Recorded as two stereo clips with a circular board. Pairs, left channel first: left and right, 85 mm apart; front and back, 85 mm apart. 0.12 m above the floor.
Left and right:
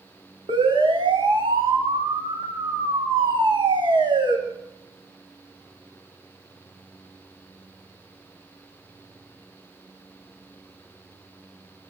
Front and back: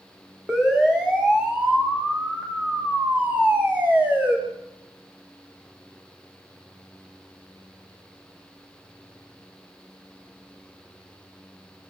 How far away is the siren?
About 8.5 m.